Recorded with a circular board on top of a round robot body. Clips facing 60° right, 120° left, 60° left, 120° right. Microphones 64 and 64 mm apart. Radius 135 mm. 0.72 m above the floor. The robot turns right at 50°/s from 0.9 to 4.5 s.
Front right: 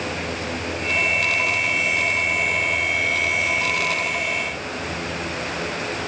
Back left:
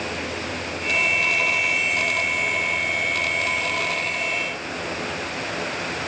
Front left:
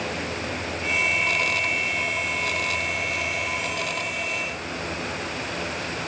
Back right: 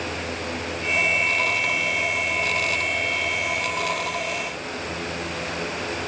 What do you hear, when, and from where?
Only background noise.